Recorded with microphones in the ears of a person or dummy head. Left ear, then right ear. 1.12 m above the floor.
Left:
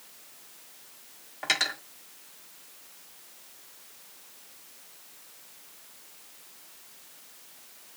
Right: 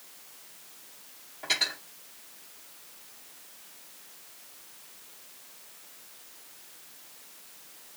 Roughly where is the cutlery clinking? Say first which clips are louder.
Left 1 dB; left.